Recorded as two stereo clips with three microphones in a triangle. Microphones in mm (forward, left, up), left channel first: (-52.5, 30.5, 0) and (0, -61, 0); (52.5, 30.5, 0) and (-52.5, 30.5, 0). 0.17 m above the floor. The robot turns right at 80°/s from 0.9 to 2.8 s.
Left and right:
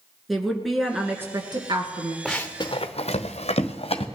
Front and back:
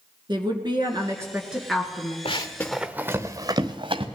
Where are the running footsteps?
30° left, 1.3 m; by 4.1 s 150° left, 1.5 m.